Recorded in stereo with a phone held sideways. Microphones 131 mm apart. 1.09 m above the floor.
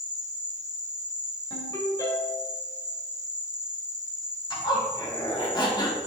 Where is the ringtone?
30° left (ahead or behind), 3.5 m.